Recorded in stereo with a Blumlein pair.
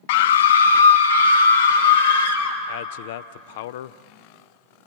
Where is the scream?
50° left, 0.6 m; by 2.6 s 80° left, 4 m.